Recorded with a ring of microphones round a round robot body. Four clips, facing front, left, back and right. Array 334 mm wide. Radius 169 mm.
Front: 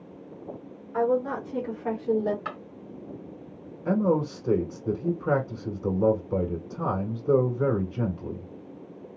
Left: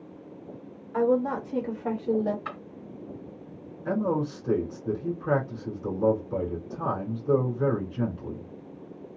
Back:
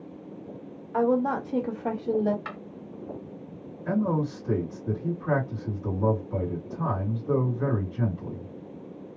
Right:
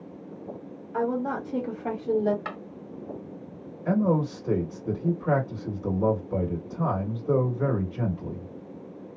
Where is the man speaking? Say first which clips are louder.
Right 3 dB, front 2 dB; 20° right, 2.0 m.